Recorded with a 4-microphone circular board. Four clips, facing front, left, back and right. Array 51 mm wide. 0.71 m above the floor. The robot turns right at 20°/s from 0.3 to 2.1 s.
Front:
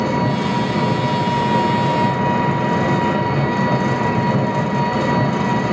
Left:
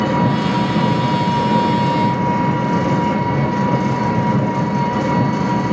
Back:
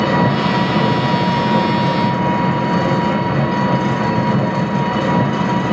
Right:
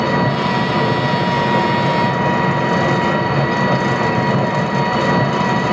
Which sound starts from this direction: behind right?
An engine running, at 0.0 s.